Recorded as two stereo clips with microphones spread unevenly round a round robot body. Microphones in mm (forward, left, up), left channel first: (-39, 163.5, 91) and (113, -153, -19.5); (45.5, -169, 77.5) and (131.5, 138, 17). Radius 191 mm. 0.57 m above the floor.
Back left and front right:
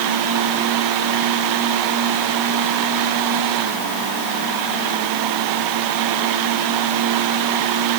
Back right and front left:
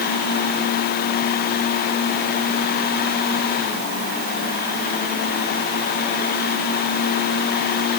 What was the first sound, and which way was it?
Only background noise.